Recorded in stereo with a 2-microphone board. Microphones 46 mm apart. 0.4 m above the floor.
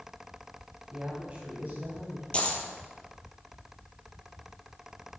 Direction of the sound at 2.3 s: 25° left (ahead or behind).